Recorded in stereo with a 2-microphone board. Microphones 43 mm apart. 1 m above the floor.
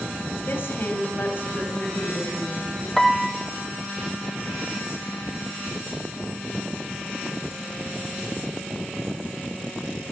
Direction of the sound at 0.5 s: 55° left (ahead or behind).